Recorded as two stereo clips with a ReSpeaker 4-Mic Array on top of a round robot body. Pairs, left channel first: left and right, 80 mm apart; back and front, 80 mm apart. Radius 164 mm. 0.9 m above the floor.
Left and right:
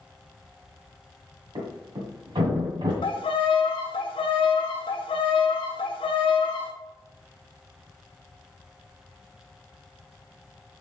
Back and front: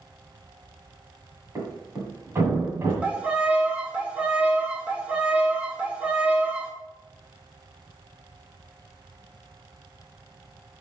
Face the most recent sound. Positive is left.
turn(degrees=75)